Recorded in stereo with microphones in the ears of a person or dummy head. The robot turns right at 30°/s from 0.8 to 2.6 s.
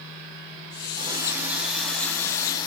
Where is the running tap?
25° right, 7 m; by 2.7 s 25° left, 7 m.